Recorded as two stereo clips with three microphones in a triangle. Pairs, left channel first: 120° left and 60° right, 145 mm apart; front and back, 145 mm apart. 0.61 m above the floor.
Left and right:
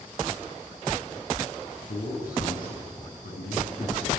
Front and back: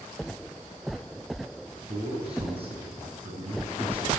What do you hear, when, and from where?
1.9 s a man speaking: 130° left, 5.5 m